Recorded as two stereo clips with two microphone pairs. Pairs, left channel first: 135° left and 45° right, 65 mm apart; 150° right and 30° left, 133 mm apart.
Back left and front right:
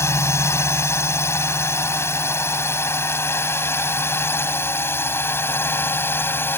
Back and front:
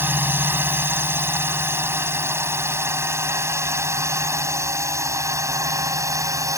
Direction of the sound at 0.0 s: 100° left.